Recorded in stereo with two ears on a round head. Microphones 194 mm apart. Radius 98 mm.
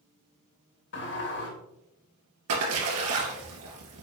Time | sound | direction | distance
0.9 | a sliding door | 55° left (ahead or behind) | 2 m
2.5 | a splash | 85° right | 2.5 m